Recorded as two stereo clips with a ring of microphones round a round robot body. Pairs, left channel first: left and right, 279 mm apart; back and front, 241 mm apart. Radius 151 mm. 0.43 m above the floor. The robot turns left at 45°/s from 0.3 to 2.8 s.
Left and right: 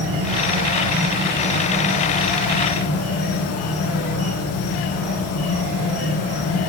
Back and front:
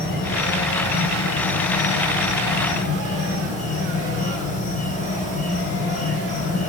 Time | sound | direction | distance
0.0 | an insect | 125° right | 3.5 m